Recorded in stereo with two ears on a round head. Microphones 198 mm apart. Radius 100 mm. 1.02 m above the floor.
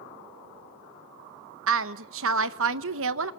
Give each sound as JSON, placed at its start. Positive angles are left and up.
{"t": 1.7, "sound": "a woman speaking", "side_deg": -65, "distance_m": 0.9}